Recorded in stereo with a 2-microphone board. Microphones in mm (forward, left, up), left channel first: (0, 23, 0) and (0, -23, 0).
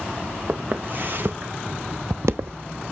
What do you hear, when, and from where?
0.5 s footsteps: 35° right (ahead or behind), 1.4 m; by 2.8 s 50° right (ahead or behind), 0.6 m